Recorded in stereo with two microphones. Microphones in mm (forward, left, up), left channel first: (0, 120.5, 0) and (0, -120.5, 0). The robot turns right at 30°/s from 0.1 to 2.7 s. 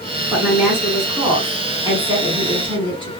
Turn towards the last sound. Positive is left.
turn(degrees=-20)  # may be behind; listen again after turning